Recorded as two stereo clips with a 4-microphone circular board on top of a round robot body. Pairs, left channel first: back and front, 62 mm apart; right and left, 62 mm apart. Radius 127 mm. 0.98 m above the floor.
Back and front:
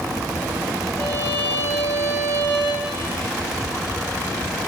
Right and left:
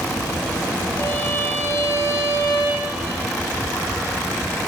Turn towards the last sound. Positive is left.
turn(degrees=-135)